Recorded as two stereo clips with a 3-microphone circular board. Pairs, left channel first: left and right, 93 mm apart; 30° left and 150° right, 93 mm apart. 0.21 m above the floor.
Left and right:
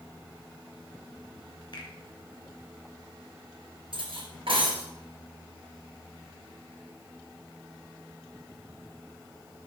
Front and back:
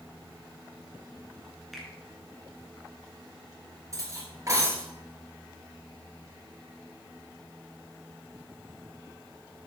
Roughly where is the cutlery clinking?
Right.